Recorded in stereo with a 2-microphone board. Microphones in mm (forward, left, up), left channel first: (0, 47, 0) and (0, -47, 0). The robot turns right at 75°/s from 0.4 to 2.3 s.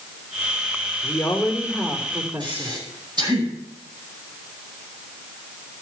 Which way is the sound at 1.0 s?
155° left.